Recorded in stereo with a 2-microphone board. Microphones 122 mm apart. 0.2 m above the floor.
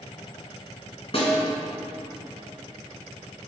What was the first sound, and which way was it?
A snare drum, 50° left (ahead or behind).